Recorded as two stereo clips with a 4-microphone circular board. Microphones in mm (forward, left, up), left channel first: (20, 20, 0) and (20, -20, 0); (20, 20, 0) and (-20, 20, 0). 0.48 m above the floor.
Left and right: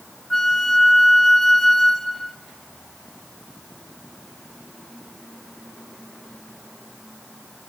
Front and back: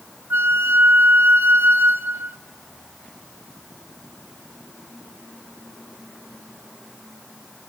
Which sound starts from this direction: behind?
A flute, at 0.3 s.